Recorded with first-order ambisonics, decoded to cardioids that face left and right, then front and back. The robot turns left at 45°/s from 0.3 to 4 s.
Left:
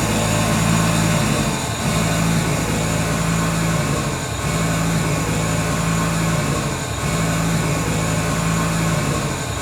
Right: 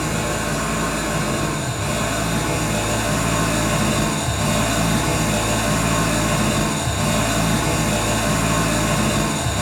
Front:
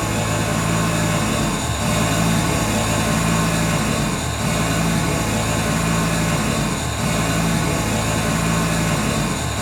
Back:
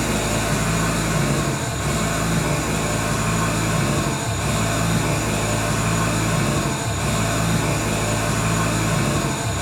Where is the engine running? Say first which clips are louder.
Left 3 dB, even; 95° left, 1.2 m; by 9.6 s 70° right, 1.2 m.